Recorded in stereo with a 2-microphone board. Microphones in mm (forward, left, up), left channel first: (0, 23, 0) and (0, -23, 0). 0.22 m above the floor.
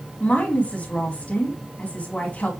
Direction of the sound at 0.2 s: 30° left (ahead or behind).